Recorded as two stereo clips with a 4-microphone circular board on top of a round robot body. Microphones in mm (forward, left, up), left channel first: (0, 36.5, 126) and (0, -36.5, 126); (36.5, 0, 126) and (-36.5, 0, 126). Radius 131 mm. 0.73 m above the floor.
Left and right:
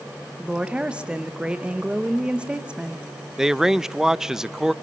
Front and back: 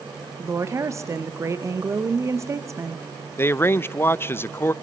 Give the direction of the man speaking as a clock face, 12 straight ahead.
12 o'clock.